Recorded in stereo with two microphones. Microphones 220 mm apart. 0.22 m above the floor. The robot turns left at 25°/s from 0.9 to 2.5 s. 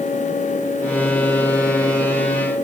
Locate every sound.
Only background noise.